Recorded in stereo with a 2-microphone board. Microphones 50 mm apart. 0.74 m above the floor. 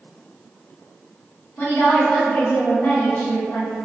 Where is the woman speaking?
50° left (ahead or behind), 1.7 m.